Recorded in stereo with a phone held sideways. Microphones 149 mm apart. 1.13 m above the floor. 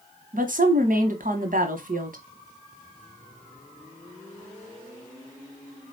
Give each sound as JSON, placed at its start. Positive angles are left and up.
{"t": 0.3, "sound": "a woman speaking", "side_deg": -65, "distance_m": 1.0}